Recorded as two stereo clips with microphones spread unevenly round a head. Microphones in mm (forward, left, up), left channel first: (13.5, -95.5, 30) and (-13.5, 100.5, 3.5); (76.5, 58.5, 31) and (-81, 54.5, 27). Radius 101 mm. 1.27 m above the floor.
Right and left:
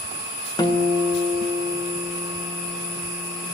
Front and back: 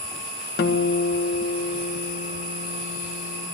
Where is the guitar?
10° right, 1.1 m.